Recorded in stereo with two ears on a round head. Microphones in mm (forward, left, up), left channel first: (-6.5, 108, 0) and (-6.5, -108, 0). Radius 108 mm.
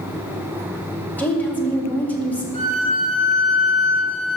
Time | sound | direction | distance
1.2 | a woman speaking | 5° left (ahead or behind) | 1.9 m
2.5 | a violin | 25° left (ahead or behind) | 3.5 m